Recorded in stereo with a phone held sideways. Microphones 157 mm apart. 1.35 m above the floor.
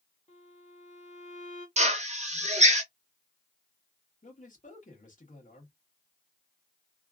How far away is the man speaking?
About 1.3 m.